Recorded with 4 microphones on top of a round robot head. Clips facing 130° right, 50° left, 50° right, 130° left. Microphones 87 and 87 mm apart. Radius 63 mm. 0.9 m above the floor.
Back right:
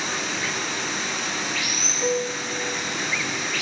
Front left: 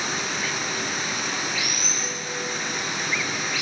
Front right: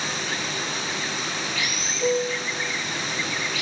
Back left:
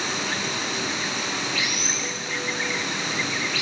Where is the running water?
135° left, 6 m.